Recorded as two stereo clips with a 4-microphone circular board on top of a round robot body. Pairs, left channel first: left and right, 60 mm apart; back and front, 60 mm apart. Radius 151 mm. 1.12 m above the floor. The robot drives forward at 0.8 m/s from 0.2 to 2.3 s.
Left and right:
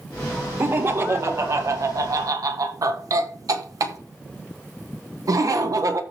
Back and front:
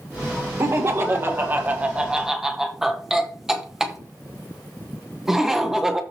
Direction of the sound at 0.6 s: 40° right.